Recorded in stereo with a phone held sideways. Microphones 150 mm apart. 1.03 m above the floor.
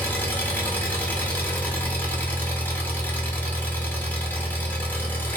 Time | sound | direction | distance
0.0 | an engine running | 10° left (ahead or behind) | 0.9 m